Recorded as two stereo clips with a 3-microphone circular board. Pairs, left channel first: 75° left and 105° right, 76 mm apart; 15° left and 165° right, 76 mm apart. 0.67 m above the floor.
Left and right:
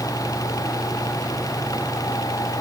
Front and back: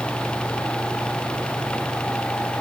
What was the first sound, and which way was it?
Only background noise.